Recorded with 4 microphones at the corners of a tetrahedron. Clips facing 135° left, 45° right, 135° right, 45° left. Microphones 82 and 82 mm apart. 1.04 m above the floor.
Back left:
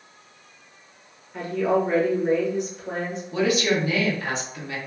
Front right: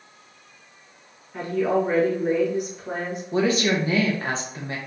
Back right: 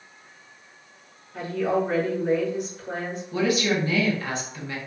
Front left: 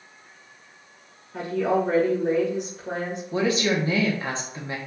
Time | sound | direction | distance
1.3 | a woman speaking | 35° left | 1.7 m
3.3 | a woman speaking | 5° right | 0.9 m